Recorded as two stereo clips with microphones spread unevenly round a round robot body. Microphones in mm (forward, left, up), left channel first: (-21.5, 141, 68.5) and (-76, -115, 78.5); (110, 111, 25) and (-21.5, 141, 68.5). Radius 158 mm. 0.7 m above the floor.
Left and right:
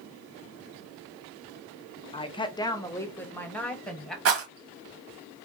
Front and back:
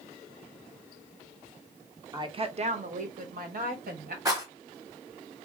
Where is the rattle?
130° right, 0.8 m.